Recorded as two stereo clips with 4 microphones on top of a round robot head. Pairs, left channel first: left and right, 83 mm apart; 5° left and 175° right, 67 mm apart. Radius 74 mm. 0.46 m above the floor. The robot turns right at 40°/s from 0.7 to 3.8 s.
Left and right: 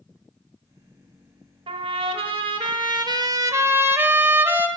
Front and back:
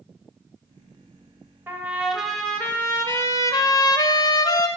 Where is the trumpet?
110° right, 0.8 m; by 4.7 s 25° right, 0.8 m.